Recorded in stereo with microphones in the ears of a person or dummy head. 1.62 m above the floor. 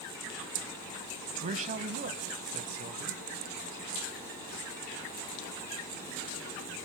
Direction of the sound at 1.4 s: 35° right (ahead or behind).